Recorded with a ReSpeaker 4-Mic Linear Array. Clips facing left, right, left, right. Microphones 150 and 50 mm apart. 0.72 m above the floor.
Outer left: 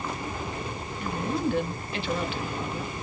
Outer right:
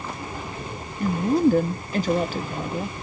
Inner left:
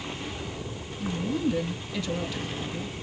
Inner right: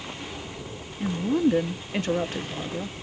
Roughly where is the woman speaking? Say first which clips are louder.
Outer right 9 dB, inner right 5 dB; right.